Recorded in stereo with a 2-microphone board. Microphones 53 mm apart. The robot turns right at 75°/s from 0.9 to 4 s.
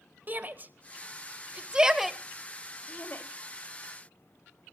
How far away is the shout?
About 1.4 m.